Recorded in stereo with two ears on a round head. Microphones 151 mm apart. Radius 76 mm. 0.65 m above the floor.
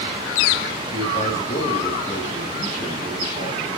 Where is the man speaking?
40° left (ahead or behind), 3 m.